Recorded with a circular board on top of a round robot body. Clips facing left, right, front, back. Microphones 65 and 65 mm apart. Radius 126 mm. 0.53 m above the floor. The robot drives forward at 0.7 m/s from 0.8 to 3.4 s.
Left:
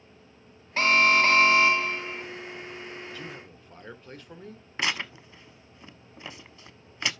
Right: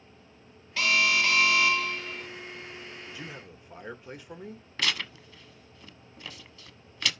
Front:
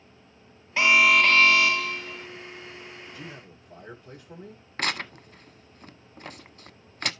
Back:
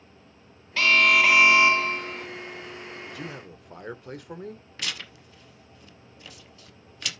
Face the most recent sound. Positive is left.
turn(degrees=30)